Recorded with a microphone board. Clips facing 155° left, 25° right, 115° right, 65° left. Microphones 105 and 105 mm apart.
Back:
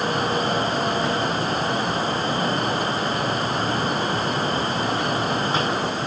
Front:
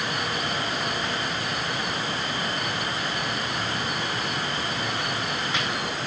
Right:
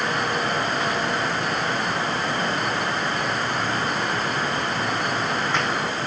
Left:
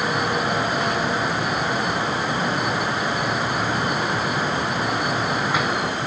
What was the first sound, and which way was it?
Only background noise.